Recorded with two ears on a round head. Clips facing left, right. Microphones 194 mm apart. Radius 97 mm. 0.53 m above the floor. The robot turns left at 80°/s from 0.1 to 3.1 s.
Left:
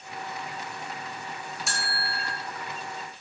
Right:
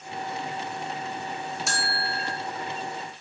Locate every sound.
1.7 s a bell: straight behind, 0.8 m; by 2.4 s 125° left, 0.8 m